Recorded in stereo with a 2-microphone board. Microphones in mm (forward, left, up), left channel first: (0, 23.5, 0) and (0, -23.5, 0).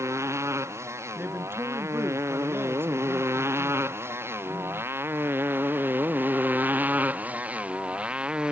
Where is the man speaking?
50° right (ahead or behind).